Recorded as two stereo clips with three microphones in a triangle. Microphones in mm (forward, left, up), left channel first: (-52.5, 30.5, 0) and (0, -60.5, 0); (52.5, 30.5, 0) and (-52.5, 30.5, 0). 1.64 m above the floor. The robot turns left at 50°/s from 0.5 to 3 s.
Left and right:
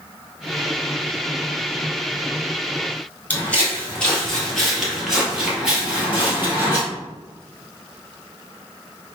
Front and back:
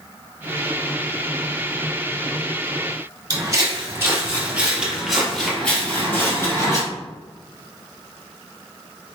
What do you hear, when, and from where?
3.3 s footsteps: 175° right, 1.9 m; by 6.8 s 15° right, 1.8 m